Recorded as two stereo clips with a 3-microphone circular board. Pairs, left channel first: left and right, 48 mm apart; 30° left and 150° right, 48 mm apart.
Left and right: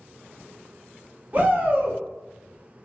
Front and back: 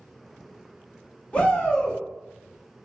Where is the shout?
35° right, 1.1 m.